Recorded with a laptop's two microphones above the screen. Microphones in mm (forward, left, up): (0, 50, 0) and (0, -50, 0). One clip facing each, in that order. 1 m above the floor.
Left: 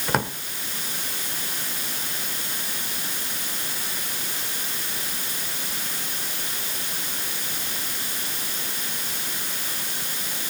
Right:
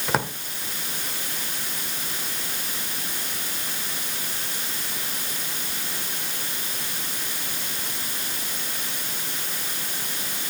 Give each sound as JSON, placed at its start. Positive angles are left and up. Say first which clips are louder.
{"t": 0.1, "sound": "a drawer", "louder": "even", "side_deg": 0, "distance_m": 1.2}